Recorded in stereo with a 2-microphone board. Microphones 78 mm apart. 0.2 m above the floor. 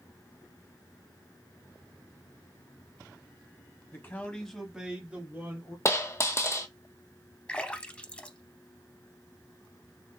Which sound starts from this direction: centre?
A splash, at 7.5 s.